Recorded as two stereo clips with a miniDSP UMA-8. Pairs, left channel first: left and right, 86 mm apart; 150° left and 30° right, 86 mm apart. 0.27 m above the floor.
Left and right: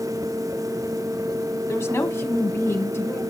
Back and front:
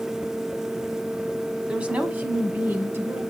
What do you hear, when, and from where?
1.7 s a woman speaking: 45° left, 1.5 m; by 3.2 s 25° left, 2.5 m